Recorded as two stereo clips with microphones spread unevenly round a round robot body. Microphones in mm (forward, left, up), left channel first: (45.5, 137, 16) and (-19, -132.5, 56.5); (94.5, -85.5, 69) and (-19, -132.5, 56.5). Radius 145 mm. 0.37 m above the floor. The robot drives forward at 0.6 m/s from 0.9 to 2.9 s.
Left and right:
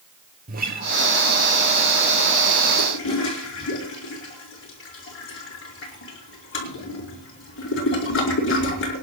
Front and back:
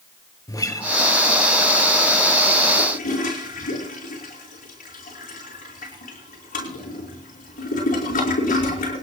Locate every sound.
0.5 s a guitar: 40° right, 1.9 m
2.8 s a toilet flushing: 30° left, 5 m